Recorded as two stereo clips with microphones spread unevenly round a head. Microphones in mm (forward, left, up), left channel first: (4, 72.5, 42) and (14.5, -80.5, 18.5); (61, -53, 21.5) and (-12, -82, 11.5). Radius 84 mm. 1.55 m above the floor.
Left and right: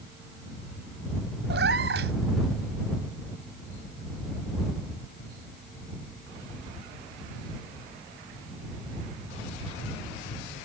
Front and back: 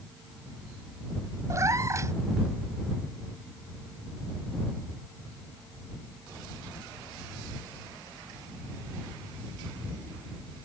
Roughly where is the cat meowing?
Right.